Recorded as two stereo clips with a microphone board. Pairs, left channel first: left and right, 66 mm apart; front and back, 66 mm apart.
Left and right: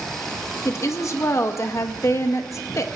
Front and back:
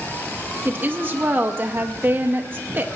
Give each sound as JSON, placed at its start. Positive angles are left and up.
{"t": 0.7, "sound": "a woman speaking", "azimuth_deg": 125, "distance_m": 0.7}